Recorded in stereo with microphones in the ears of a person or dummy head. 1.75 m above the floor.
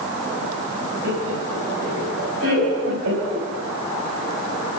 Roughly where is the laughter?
Right.